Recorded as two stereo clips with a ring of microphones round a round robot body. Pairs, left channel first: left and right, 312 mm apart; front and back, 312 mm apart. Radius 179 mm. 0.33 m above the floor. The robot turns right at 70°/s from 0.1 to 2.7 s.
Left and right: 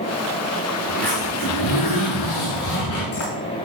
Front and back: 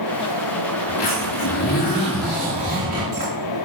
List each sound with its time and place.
0.9 s a zipper: 5° right, 7.5 m; by 3.3 s 125° left, 7.5 m